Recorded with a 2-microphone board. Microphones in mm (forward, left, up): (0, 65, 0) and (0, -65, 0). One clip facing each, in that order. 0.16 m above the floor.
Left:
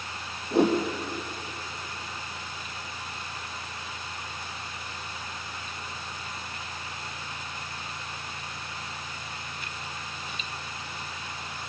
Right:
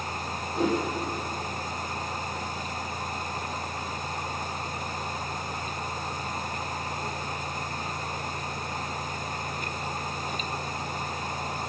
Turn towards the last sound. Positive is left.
turn(degrees=70)  # may be behind; listen again after turning